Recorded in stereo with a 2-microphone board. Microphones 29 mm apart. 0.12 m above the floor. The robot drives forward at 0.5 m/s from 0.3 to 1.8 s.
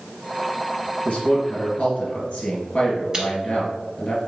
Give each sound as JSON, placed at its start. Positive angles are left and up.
{"t": 1.1, "sound": "a man speaking", "side_deg": 50, "distance_m": 2.0}
{"t": 3.1, "sound": "chewing", "side_deg": -30, "distance_m": 1.1}